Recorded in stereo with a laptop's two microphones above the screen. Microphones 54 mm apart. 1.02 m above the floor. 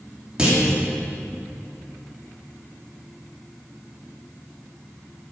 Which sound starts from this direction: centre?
A clunk, at 0.4 s.